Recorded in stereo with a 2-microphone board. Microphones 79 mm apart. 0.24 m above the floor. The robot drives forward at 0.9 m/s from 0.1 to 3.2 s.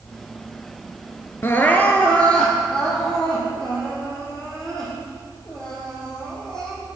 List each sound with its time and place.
1.4 s crying: 35° left (ahead or behind), 0.6 m; by 6.8 s 10° left (ahead or behind), 2 m